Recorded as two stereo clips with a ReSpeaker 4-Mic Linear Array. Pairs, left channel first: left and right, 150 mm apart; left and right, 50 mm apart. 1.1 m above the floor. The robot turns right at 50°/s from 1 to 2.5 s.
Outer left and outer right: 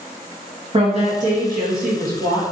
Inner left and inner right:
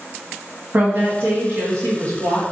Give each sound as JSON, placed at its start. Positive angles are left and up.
{"t": 0.7, "sound": "a woman speaking", "azimuth_deg": -140, "distance_m": 1.5}